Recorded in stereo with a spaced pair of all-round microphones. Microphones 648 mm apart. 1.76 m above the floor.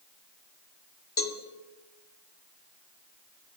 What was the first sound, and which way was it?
A cowbell, 35° left (ahead or behind).